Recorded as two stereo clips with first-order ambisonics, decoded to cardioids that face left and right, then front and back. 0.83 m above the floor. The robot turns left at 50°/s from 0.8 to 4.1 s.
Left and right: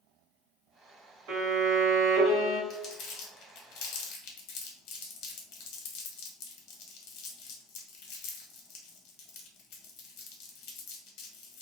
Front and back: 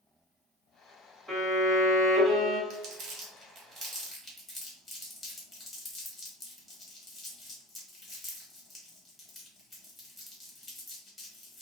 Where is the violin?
85° right, 1.6 m; by 2.6 s 150° right, 1.6 m.